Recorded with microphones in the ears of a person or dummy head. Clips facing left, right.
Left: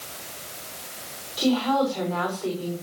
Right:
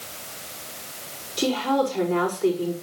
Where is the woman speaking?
30° right (ahead or behind), 6 m.